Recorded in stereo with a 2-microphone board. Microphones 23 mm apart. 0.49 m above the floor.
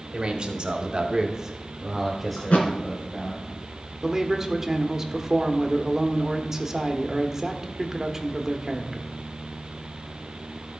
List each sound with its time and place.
0.1 s a man speaking: 40° right (ahead or behind), 1.7 m; by 3.4 s 15° left (ahead or behind), 3 m
2.4 s a thud: 75° left (ahead or behind), 2 m
4.0 s a man speaking: 15° right (ahead or behind), 1.0 m